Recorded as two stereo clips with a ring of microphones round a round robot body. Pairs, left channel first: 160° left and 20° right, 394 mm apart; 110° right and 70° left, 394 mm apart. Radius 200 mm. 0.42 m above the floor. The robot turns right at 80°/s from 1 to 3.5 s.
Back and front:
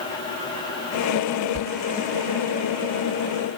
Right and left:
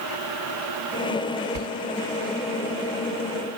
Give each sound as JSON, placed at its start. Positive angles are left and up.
{"t": 1.6, "sound": "a sliding door", "azimuth_deg": 35, "distance_m": 0.6}